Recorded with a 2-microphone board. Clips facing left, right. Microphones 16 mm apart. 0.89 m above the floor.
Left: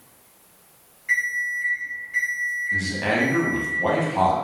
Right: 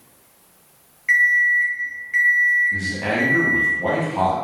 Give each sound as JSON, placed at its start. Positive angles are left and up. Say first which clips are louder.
{"t": 1.1, "sound": "an alarm clock", "louder": "right 8 dB", "side_deg": -75, "distance_m": 1.0}
{"t": 2.7, "sound": "a man speaking", "louder": "even", "side_deg": 25, "distance_m": 0.8}